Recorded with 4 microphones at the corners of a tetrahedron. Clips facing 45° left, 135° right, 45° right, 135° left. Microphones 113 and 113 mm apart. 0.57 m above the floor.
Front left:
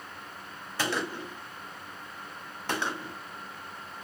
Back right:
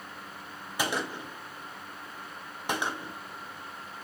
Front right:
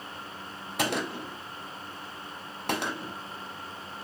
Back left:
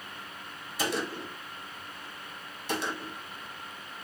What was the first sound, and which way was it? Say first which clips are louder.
A gunshot: even, front right 2 dB; 60° right.